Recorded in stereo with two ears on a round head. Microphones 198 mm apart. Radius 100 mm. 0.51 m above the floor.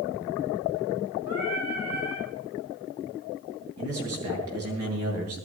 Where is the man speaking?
80° right, 8 m.